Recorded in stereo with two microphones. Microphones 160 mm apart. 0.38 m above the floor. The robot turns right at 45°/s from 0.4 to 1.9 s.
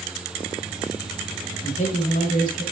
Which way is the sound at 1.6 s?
40° left (ahead or behind).